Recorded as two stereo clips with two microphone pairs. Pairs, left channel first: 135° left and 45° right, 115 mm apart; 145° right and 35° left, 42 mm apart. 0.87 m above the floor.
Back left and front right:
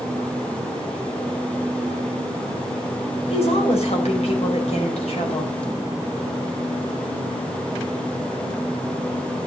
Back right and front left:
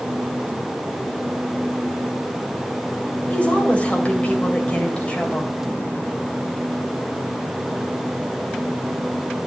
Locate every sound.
3.3 s a woman speaking: 155° left, 4 m